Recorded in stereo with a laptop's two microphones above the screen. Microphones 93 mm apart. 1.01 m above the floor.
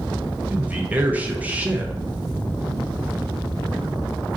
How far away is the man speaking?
About 0.8 m.